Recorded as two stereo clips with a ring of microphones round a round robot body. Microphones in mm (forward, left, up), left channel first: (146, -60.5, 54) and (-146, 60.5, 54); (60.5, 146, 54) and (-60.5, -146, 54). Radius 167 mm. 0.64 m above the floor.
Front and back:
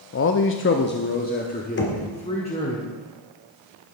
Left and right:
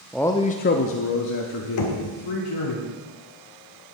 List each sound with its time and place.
0.1 s a man speaking: 25° right, 0.7 m; by 2.8 s 50° left, 2.0 m
1.8 s knocking: 35° left, 1.9 m